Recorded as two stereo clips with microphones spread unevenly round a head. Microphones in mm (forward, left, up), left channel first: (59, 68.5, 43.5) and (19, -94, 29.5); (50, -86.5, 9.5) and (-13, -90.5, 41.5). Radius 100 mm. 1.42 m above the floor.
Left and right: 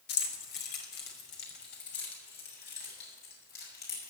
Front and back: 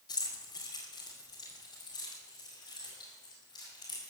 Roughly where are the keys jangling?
Ahead left.